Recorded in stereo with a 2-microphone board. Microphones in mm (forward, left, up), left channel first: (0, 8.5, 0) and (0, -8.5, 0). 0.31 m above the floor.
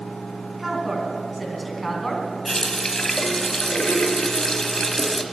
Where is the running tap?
30° left (ahead or behind), 1.1 m.